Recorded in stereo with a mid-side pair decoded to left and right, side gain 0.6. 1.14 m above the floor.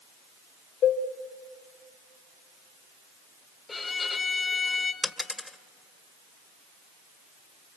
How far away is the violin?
About 1.6 m.